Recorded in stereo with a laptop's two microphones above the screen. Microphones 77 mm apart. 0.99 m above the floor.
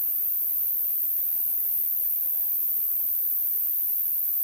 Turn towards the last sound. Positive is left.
turn(degrees=-45)  # may be behind; listen again after turning